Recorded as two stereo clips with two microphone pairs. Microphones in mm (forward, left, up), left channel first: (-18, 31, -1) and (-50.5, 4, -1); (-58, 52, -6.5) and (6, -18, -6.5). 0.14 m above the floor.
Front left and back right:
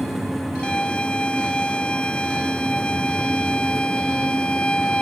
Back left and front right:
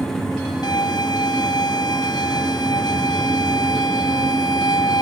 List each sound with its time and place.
0.6 s a violin: 105° left